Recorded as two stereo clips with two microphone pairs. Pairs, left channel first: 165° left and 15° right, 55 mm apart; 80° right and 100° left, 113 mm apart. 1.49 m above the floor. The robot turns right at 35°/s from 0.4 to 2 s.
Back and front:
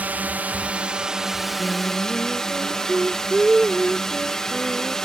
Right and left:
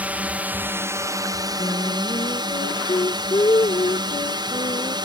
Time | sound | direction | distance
0.0 | a drone | 30° left | ?
1.6 | singing | 105° right | ?